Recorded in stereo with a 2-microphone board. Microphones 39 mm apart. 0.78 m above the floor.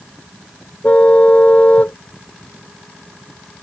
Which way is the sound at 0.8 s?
40° left (ahead or behind).